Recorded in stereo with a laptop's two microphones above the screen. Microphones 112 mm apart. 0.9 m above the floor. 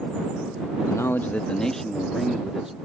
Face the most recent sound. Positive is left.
turn(degrees=-5)  # may be behind; listen again after turning